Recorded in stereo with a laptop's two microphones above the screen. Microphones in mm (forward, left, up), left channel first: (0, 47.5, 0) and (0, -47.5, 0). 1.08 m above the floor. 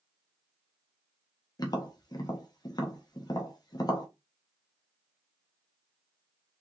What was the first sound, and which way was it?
Tapping, 45° left (ahead or behind).